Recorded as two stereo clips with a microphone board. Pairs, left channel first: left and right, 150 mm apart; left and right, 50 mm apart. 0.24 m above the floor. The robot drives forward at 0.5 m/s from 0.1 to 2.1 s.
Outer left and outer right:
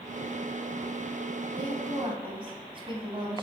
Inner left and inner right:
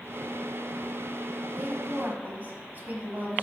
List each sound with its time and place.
1.5 s a woman speaking: 35° right (ahead or behind), 1.2 m